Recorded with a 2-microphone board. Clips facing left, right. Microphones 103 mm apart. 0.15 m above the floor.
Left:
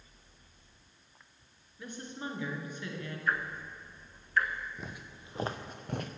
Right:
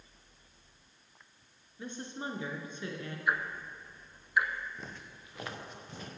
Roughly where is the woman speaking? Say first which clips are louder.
Right 1 dB; right.